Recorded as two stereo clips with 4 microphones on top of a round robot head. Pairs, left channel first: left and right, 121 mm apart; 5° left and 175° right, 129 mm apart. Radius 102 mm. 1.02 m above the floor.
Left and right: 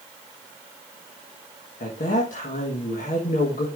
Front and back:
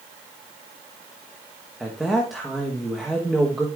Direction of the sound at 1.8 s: 95° left.